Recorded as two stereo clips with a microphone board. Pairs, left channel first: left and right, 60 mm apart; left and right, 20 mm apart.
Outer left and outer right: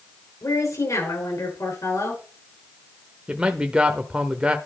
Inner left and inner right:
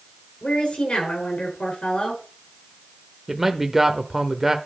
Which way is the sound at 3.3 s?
20° right (ahead or behind).